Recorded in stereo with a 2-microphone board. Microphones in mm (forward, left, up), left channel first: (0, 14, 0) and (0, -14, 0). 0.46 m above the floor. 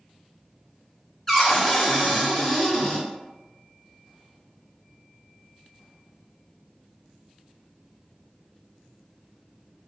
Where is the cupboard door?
10° left (ahead or behind), 0.9 m.